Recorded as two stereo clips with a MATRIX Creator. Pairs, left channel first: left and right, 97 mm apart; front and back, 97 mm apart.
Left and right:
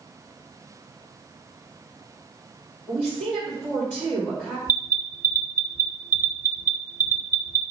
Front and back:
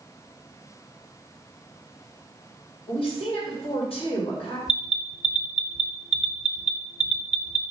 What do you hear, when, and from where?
2.9 s a woman speaking: 5° left, 2.5 m
4.7 s an alarm: 105° right, 0.7 m